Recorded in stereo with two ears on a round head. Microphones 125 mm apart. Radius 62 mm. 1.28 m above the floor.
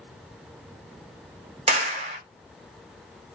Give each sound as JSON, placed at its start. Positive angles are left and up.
{"t": 1.7, "sound": "a clap", "side_deg": -50, "distance_m": 0.6}